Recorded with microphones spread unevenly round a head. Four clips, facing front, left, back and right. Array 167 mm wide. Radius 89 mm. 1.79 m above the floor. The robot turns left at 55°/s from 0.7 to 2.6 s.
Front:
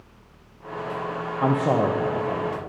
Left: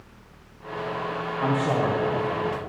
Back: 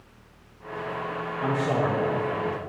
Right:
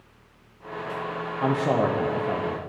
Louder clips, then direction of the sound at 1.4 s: Right 1 dB, front 4 dB; 10° right.